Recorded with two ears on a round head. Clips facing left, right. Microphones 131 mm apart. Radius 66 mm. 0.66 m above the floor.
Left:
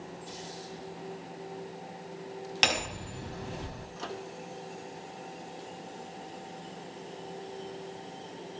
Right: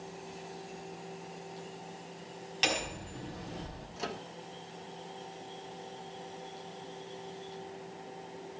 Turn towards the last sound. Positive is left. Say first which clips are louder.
# even
turn(degrees=-10)  # may be behind; listen again after turning